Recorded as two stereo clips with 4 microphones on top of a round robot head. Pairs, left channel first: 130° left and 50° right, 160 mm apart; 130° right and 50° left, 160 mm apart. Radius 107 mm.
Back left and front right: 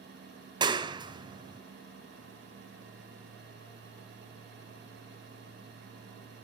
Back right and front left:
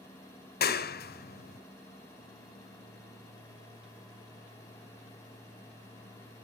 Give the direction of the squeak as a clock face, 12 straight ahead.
I don't hear a squeak.